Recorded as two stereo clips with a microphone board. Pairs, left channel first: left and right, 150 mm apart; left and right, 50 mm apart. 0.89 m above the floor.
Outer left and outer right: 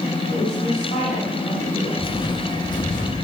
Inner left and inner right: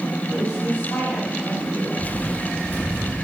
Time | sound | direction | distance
0.3 | a woman speaking | 65° left (ahead or behind) | 7.5 m
2.0 | footsteps | 25° left (ahead or behind) | 1.5 m